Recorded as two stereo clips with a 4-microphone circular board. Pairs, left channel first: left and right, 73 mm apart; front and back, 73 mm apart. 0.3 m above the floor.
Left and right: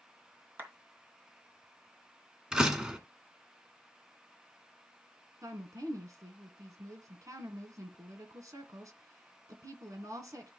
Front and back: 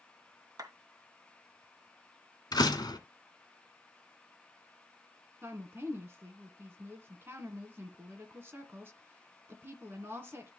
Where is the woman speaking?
125° right, 2.5 m.